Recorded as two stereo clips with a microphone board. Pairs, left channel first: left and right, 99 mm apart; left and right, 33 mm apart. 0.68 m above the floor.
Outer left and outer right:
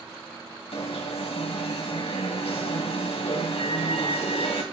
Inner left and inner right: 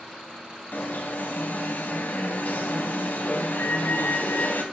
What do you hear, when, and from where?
0.7 s an alarm: 70° left (ahead or behind), 3 m